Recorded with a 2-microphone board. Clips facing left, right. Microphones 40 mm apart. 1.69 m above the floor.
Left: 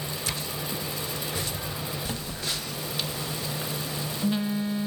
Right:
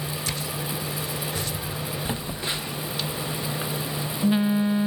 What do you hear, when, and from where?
2.0 s a phone buzzing: 25° right (ahead or behind), 1.1 m